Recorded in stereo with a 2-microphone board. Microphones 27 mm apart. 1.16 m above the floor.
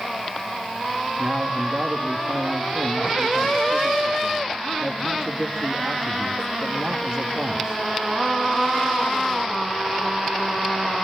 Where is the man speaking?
35° right (ahead or behind), 1.8 m.